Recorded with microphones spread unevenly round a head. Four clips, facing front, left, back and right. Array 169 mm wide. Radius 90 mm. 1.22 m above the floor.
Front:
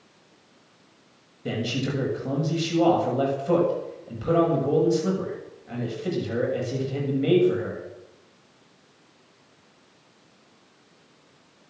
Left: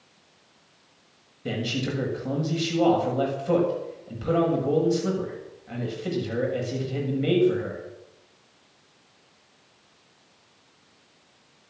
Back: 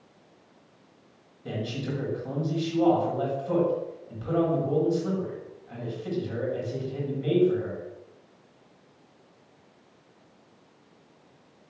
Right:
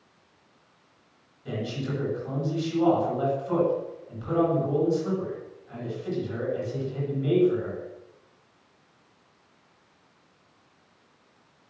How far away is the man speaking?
About 7 m.